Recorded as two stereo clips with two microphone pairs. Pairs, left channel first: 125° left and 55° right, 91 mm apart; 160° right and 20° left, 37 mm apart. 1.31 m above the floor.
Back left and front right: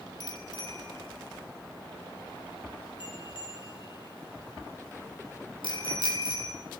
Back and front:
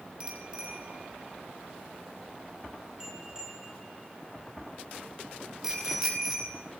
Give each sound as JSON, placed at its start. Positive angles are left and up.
{"t": 0.2, "sound": "a bicycle bell", "azimuth_deg": 85, "distance_m": 6.5}